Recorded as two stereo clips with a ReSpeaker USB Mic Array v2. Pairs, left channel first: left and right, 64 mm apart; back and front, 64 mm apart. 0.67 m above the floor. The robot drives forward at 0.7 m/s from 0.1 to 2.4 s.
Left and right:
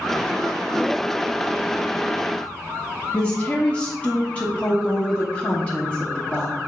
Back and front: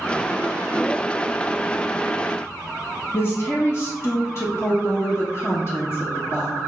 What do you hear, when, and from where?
3.1 s a woman speaking: 150° left, 0.7 m